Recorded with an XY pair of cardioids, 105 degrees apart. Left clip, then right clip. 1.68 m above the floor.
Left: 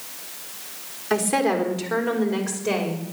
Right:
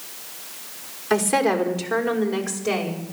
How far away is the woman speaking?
About 4 m.